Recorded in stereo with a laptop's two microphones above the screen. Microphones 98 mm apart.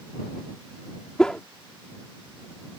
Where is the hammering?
No hammering in this recording.